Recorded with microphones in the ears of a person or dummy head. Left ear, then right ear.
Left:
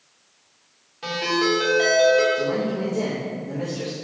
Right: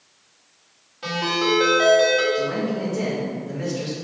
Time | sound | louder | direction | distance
1.0 | a ringtone | even | 5° left (ahead or behind) | 2.5 m
2.3 | a man speaking | even | 10° left (ahead or behind) | 1.5 m